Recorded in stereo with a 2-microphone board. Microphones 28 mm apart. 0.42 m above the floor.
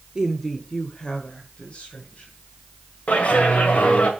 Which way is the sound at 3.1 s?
60° left (ahead or behind).